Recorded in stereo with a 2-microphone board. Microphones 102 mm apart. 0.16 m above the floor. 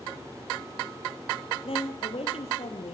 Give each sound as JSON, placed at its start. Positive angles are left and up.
{"t": 1.6, "sound": "a woman speaking", "side_deg": 70, "distance_m": 4.5}